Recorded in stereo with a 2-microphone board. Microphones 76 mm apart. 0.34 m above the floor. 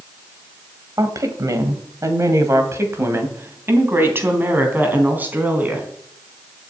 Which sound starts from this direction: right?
A woman speaking, at 1.0 s.